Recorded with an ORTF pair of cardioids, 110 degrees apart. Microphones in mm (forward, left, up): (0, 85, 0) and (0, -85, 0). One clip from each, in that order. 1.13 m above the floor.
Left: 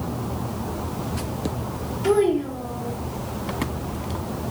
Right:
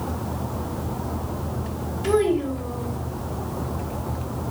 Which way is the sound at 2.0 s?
Straight ahead.